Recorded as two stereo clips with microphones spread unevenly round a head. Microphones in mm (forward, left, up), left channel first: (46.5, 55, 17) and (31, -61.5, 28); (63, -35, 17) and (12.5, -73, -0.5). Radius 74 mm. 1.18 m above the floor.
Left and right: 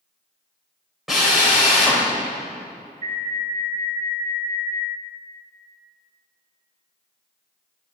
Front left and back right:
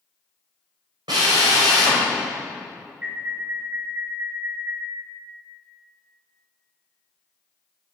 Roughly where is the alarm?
Right.